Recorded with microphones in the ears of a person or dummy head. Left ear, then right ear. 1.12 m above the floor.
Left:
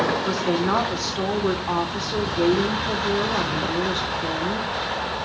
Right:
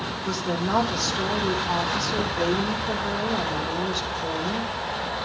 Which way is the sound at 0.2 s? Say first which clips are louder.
Left 4 dB; 25° left (ahead or behind).